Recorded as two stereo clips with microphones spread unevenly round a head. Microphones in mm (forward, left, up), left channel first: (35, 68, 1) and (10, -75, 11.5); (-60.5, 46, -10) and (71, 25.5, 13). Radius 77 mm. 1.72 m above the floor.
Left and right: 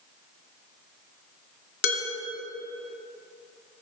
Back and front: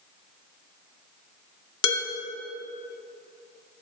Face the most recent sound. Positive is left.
turn(degrees=115)